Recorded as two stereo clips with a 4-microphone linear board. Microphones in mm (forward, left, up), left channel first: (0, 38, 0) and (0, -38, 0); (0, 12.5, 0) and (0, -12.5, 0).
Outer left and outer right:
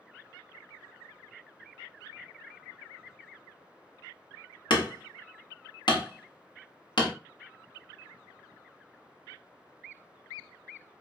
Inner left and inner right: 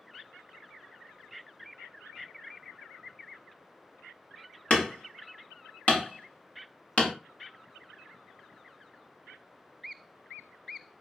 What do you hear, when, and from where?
4.7 s hammering: 85° left, 1.2 m